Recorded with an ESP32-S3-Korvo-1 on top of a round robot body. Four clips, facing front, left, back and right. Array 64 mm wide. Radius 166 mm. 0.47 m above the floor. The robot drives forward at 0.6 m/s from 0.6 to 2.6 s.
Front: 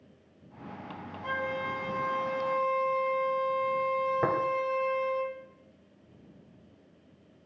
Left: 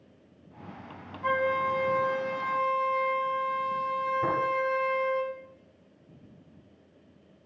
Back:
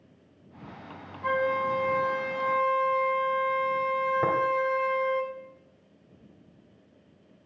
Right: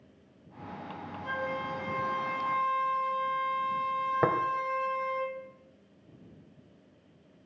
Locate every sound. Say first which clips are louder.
1.2 s a flute: left 8 dB, back 7 dB; 125° left, 0.7 m; by 5.2 s 155° left, 1.4 m
4.2 s tapping: right 4 dB, back 1 dB; 85° right, 2 m